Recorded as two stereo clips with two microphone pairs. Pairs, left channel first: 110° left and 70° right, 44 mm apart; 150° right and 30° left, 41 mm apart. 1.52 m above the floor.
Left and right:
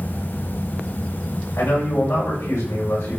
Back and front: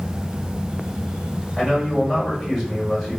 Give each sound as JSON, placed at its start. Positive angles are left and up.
{"t": 1.6, "sound": "a man speaking", "azimuth_deg": 120, "distance_m": 7.0}